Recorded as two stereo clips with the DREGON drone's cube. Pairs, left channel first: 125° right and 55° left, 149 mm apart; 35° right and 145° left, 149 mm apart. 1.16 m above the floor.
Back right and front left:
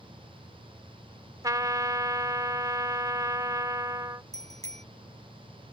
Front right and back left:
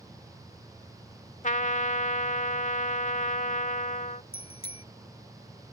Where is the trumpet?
10° right.